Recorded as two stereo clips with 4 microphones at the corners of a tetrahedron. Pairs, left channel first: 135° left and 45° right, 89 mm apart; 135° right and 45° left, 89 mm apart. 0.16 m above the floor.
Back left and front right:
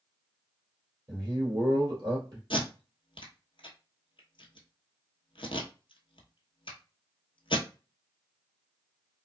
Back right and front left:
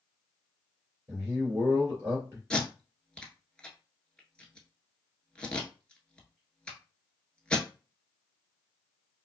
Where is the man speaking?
5° left, 2.5 m.